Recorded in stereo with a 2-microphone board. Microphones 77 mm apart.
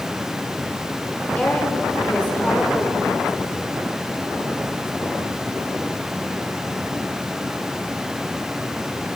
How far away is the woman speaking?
About 3 m.